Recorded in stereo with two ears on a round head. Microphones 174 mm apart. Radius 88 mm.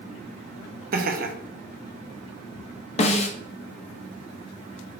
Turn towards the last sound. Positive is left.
turn(degrees=35)  # may be behind; listen again after turning